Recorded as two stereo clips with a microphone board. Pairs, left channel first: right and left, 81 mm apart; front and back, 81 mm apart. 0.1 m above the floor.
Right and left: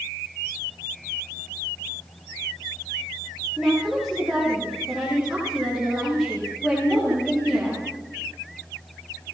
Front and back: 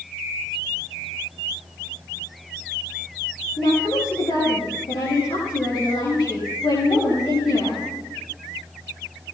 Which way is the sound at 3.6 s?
10° left.